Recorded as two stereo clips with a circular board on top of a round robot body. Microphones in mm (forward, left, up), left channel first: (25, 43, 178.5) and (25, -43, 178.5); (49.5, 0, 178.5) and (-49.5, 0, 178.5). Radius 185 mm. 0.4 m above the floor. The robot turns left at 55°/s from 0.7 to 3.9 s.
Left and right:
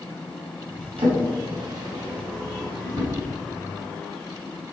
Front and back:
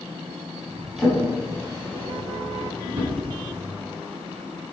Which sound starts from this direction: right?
A drawer, at 1.0 s.